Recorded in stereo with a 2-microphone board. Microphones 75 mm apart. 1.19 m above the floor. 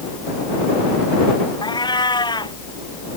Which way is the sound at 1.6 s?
70° left (ahead or behind).